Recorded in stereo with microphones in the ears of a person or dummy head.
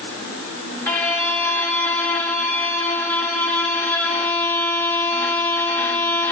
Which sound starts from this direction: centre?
A violin, at 0.9 s.